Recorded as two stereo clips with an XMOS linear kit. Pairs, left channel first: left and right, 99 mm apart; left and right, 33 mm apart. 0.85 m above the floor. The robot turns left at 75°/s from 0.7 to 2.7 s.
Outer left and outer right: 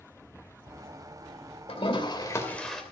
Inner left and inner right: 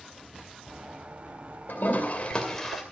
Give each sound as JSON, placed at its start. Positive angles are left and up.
{"t": 1.7, "sound": "a toilet flushing", "azimuth_deg": 80, "distance_m": 2.5}